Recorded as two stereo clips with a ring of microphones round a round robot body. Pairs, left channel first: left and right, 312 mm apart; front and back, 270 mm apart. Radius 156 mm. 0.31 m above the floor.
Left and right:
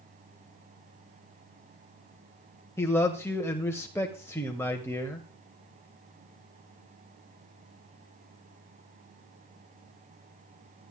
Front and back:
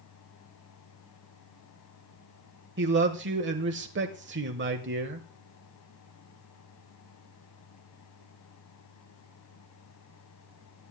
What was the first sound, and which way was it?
A man speaking, 170° left.